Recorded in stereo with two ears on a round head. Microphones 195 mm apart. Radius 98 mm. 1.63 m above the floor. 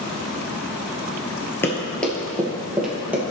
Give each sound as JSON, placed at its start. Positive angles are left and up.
{"t": 1.6, "sound": "running footsteps", "side_deg": 10, "distance_m": 1.7}